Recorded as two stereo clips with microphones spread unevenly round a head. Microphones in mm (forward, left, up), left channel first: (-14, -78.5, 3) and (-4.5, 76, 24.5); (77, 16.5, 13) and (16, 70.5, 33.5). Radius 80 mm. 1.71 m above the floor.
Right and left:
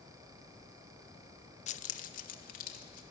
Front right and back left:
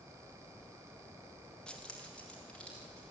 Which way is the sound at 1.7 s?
135° right.